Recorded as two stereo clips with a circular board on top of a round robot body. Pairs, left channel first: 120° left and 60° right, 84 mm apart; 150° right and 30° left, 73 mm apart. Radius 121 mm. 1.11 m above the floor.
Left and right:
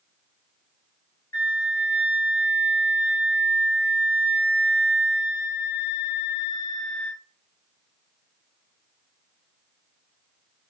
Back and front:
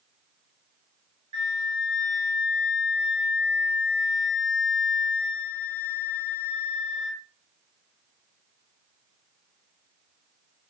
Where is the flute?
55° left, 1.6 m.